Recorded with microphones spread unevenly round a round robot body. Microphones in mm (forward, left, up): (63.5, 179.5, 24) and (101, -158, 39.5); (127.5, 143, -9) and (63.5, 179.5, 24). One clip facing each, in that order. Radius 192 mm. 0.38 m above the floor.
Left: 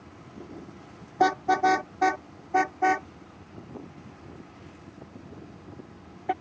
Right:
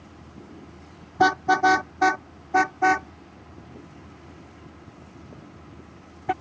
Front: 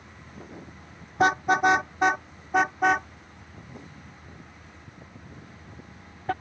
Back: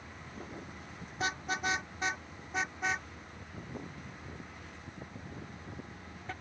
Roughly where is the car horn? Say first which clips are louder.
Right 2 dB, front 14 dB; ahead right.